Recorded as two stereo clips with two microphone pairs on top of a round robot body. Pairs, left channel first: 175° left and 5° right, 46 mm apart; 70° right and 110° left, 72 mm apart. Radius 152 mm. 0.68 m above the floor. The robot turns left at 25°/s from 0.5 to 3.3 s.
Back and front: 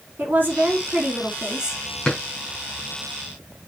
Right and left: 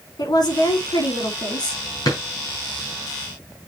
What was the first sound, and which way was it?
A woman speaking, 55° right.